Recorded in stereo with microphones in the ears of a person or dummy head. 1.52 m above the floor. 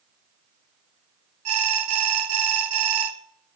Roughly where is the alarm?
Right.